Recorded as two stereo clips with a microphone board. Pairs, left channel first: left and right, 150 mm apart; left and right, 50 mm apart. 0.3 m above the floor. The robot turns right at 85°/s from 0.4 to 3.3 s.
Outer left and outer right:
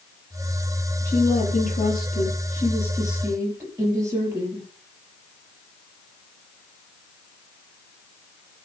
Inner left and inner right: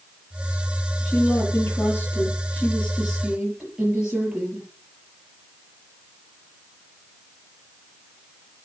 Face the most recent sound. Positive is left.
turn(degrees=-160)